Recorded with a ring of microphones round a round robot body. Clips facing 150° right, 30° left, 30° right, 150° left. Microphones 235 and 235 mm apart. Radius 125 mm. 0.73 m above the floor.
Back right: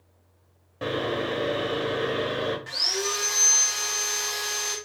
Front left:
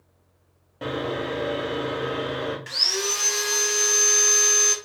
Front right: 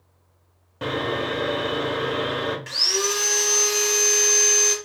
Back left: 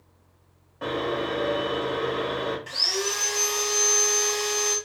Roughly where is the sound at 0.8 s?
Ahead right.